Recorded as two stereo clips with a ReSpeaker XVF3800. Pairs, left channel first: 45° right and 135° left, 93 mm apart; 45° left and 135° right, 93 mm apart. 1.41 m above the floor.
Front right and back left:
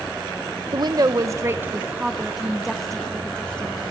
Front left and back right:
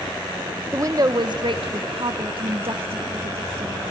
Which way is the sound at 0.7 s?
170° left.